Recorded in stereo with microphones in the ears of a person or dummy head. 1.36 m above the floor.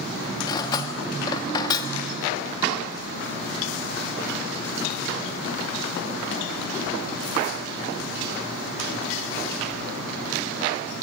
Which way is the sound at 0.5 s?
15° left (ahead or behind).